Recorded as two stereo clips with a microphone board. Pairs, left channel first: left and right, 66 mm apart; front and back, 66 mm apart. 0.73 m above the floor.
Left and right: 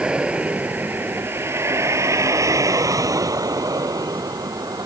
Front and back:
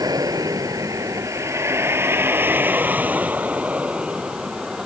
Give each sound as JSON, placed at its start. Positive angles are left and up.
{"t": 0.0, "sound": "a vehicle", "azimuth_deg": -165}